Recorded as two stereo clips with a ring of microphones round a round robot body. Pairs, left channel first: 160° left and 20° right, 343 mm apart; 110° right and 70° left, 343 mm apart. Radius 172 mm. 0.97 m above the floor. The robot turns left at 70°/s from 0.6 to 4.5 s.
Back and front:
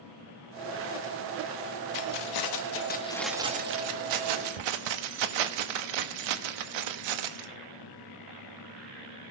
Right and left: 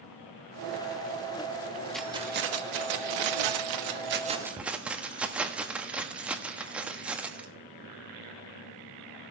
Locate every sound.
1.9 s keys jangling: 160° left, 1.2 m; by 7.5 s 20° right, 1.2 m